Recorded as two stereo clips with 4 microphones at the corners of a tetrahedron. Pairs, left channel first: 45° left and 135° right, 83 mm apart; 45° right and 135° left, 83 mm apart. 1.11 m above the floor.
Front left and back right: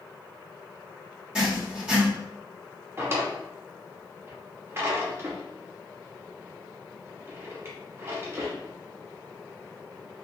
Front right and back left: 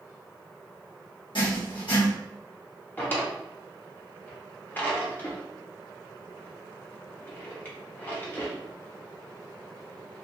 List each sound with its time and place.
1.4 s writing: 60° right, 1.2 m
3.0 s a drawer: 100° right, 0.7 m